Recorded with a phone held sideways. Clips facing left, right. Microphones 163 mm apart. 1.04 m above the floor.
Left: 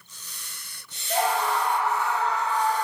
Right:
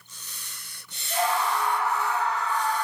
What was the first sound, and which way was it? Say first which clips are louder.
A scream: left 1 dB; 75° left (ahead or behind).